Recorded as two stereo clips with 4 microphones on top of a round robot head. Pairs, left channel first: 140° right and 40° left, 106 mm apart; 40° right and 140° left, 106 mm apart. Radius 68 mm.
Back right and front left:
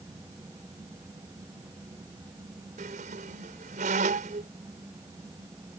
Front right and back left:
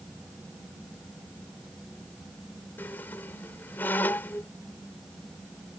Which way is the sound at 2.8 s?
35° left.